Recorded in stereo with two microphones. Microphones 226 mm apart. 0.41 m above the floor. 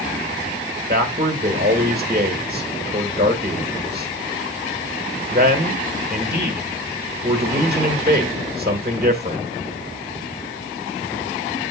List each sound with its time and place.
0.9 s a man speaking: 45° right (ahead or behind), 1.3 m